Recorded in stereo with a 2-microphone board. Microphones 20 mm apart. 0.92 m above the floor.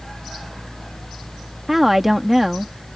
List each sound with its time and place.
1.7 s a woman speaking: 10° right (ahead or behind)